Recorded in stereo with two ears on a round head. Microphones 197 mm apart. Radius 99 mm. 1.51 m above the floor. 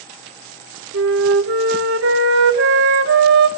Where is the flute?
60° right (ahead or behind), 1.2 m.